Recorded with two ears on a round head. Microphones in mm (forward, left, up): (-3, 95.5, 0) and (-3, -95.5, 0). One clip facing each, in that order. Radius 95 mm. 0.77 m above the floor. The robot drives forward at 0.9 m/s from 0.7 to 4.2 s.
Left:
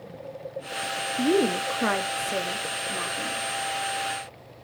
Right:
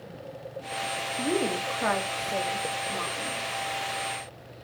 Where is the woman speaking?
30° left (ahead or behind), 1.1 m; by 3.4 s 20° left (ahead or behind), 1.9 m.